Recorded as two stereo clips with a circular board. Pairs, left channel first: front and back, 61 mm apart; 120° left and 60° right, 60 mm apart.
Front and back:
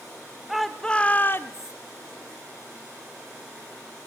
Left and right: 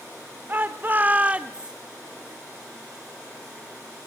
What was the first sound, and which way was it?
A shout, 95° right.